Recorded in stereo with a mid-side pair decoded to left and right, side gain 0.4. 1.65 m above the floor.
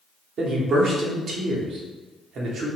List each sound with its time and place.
0.4 s a man speaking: 70° right, 1.3 m